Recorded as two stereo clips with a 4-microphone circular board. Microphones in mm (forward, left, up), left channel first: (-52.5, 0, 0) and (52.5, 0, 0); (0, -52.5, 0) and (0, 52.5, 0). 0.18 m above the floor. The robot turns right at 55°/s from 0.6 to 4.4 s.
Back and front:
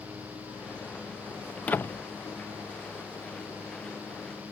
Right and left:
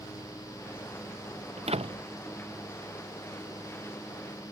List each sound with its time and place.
1.6 s a door slam: 95° left; by 2.1 s 125° left